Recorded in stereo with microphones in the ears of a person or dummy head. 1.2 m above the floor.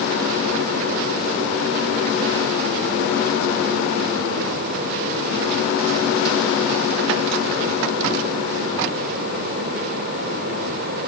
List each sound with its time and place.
Only background noise.